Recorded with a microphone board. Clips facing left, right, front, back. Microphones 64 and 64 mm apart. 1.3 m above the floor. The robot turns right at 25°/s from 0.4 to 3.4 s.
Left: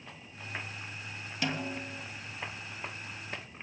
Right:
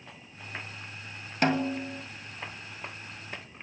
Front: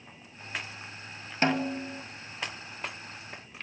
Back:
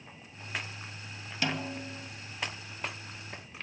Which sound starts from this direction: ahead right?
A snare drum, at 1.4 s.